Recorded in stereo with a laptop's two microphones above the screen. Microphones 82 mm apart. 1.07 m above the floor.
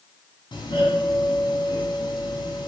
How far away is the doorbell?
About 4 m.